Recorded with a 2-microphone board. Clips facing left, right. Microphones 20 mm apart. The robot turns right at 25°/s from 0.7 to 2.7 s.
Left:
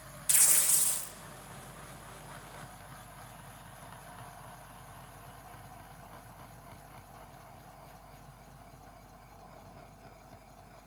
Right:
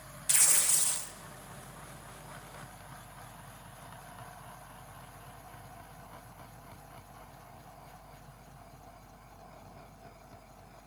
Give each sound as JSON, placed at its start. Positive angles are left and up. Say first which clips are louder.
{"t": 0.3, "sound": "tearing paper", "louder": "right 1 dB", "side_deg": -5, "distance_m": 1.4}